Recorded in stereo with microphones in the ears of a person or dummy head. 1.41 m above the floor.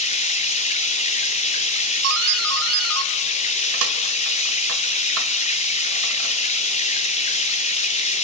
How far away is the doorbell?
About 2 m.